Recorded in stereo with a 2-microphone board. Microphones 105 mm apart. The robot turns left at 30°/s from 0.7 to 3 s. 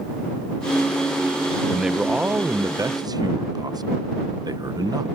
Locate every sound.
1.7 s a man speaking: straight ahead; by 5.0 s 40° right